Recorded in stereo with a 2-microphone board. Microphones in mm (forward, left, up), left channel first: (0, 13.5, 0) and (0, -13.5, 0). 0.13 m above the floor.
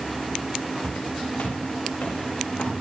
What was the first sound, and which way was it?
Footsteps, 75° left (ahead or behind).